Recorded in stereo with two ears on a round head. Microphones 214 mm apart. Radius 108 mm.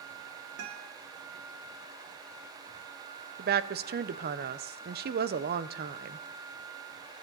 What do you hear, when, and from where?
0.6 s a guitar: 65° right (ahead or behind), 2.5 m
3.4 s a woman speaking: 40° right (ahead or behind), 0.8 m